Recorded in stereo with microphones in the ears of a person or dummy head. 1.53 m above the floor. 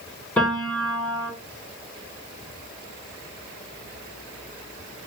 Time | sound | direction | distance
0.4 | a piano | 10° left (ahead or behind) | 4 m